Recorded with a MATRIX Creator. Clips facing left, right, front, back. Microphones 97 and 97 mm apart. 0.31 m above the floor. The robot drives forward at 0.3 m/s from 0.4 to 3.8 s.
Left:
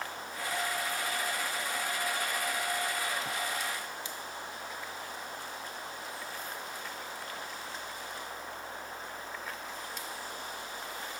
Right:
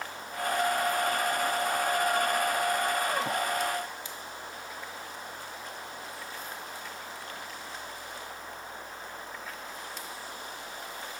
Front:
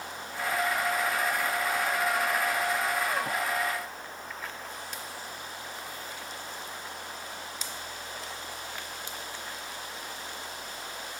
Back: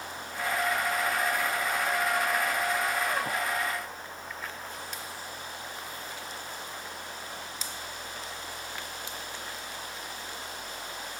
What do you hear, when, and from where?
Only background noise.